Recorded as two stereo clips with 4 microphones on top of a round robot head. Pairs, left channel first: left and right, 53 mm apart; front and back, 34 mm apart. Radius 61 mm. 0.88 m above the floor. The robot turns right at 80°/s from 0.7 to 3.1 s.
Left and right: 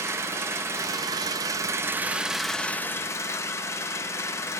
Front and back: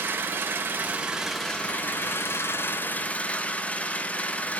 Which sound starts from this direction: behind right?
An engine running, at 0.0 s.